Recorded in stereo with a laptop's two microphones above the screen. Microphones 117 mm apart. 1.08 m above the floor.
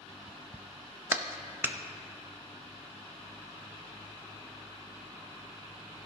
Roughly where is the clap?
Centre.